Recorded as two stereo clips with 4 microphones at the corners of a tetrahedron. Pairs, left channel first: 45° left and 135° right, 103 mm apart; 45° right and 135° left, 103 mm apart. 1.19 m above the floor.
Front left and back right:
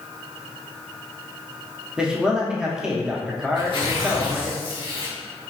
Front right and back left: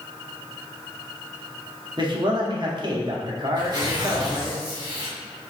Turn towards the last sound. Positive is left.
turn(degrees=85)